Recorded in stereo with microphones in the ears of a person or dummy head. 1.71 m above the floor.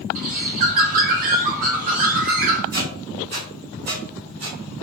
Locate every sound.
0.1 s a bird: 40° right (ahead or behind), 0.5 m
2.7 s a squeak: 45° right (ahead or behind), 1.8 m